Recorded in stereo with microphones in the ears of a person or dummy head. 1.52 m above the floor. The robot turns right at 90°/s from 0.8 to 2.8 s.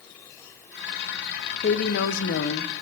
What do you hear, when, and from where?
1.6 s a woman speaking: 45° left, 0.8 m; by 2.7 s 145° left, 0.8 m